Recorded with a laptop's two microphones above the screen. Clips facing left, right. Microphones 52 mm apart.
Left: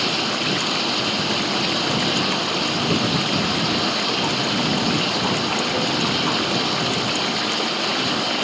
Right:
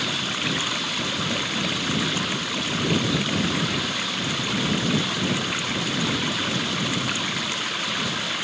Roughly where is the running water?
Left.